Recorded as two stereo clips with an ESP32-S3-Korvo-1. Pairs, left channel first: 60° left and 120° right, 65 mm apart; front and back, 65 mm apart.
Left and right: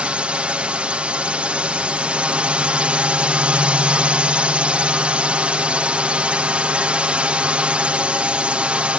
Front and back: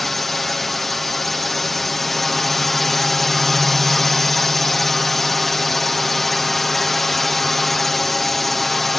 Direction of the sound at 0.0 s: 85° right.